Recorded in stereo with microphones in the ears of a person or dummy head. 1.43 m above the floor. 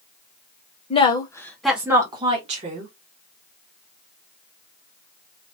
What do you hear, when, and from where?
0.9 s a woman speaking: 30° left (ahead or behind), 0.8 m; by 2.9 s 45° right (ahead or behind), 1.0 m